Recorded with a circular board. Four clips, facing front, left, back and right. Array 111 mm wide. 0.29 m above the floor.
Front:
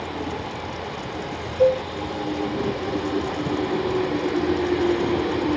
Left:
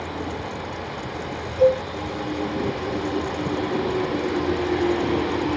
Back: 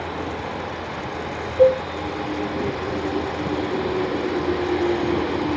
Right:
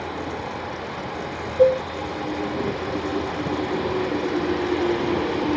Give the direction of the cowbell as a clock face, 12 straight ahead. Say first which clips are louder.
Right 1 dB, back 3 dB; 5 o'clock.